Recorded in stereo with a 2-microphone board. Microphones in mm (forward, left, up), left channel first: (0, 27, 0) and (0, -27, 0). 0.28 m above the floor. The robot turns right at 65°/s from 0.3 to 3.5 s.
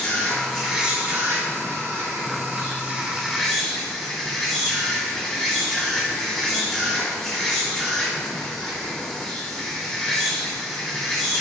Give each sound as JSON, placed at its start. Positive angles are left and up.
{"t": 0.0, "sound": "an insect", "azimuth_deg": 165, "distance_m": 1.3}